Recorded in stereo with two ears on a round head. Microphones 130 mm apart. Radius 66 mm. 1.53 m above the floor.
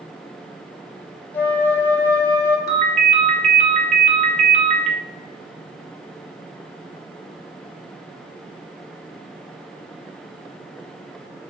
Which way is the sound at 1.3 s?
15° left (ahead or behind).